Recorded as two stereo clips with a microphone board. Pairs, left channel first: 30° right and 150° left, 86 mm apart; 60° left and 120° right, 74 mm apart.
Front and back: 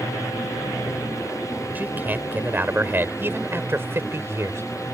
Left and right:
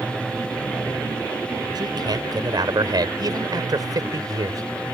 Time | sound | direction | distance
1.8 | a man speaking | 140° right | ?